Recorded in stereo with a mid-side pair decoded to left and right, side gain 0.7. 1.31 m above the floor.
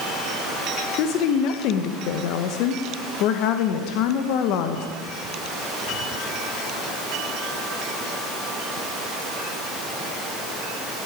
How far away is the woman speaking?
About 0.8 m.